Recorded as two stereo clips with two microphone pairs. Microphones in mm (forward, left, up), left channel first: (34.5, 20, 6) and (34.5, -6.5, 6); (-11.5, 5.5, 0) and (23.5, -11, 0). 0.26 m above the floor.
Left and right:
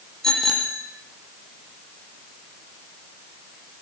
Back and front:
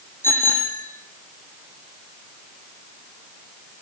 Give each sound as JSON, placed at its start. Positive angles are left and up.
{"t": 0.2, "sound": "a bicycle bell", "azimuth_deg": 160, "distance_m": 7.5}